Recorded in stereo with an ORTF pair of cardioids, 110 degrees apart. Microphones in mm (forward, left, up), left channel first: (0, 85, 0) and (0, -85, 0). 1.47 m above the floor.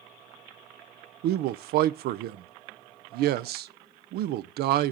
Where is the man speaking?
70° right, 0.5 m.